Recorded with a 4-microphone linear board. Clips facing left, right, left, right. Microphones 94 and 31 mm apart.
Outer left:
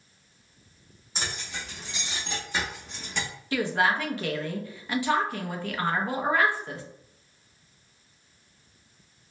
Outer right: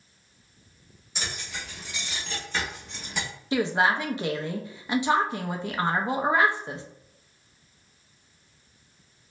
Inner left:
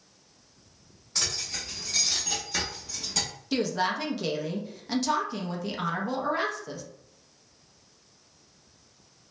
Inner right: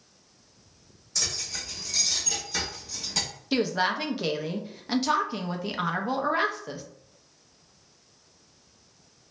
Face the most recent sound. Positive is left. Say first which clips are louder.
# outer right 2 dB, inner right 2 dB
turn(degrees=-20)  # may be behind; listen again after turning